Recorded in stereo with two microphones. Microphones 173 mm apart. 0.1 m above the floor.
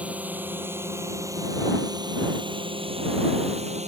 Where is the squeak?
No squeak in this recording.